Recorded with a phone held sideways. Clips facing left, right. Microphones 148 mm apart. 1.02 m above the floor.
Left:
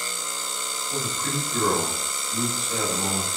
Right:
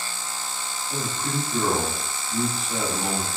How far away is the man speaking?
About 1.6 m.